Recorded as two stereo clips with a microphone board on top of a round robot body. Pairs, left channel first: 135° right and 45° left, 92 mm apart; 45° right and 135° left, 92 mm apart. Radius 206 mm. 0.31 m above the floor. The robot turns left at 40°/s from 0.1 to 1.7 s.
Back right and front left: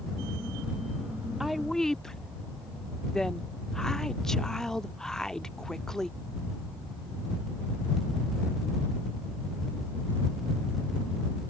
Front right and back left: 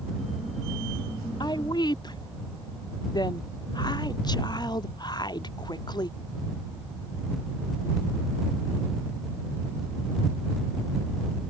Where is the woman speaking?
40° right; by 6.1 s 55° right.